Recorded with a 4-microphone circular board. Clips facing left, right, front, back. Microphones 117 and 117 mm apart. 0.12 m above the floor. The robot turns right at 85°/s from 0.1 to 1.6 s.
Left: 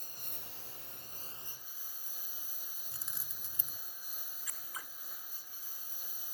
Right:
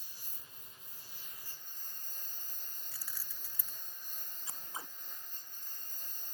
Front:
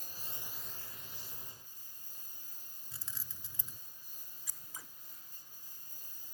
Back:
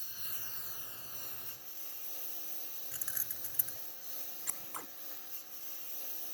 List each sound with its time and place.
0.0 s a lawn mower: 45° left; by 6.3 s 175° left
2.9 s keys jangling: 50° left
4.5 s scissors: 150° right